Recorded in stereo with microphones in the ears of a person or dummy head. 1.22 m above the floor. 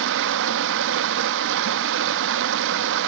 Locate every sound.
0.0 s running water: 65° right (ahead or behind), 0.9 m